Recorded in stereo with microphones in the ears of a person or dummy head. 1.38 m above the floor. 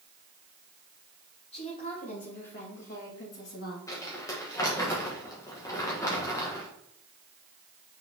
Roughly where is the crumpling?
Centre.